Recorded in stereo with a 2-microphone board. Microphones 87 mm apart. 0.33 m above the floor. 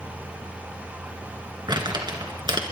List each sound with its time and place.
1.7 s crumpling: 60° right (ahead or behind), 2.5 m